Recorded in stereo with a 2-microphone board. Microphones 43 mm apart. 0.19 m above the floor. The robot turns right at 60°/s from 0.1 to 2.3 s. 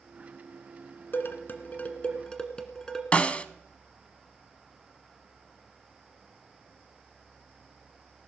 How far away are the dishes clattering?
About 1.6 m.